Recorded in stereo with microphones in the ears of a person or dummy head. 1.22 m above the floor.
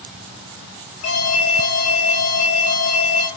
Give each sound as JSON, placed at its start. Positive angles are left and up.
{"t": 1.0, "sound": "an alarm", "side_deg": 85, "distance_m": 9.0}